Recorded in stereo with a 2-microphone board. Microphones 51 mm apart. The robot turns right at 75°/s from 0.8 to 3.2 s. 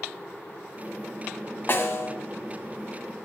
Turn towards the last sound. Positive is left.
turn(degrees=175)